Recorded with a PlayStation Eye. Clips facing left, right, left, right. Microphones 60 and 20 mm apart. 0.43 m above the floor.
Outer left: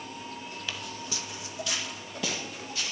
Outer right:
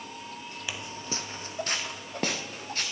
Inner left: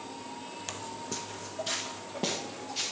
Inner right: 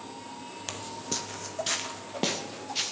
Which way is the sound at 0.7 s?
15° right (ahead or behind).